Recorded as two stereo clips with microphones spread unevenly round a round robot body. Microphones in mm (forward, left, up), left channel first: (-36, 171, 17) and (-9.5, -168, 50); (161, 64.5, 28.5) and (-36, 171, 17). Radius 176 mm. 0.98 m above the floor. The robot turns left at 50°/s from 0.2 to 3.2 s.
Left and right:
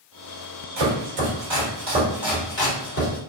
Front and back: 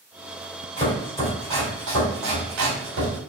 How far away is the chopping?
About 1.9 m.